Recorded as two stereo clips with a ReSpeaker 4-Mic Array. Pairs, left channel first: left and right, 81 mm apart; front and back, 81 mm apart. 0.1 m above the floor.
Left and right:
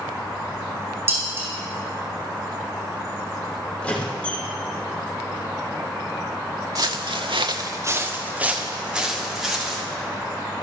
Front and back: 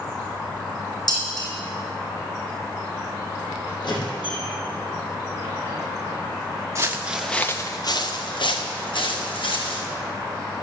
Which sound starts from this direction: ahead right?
Dishes clattering, at 1.1 s.